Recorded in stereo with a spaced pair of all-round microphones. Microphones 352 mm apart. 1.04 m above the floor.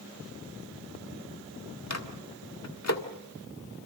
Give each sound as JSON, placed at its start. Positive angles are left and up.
{"t": 1.9, "sound": "a microwave", "side_deg": 45, "distance_m": 1.7}